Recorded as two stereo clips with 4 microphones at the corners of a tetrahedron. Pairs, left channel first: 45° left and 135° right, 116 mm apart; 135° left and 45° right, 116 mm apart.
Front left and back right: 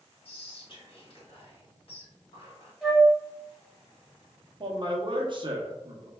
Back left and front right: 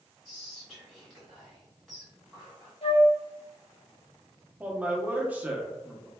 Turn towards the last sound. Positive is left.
turn(degrees=-115)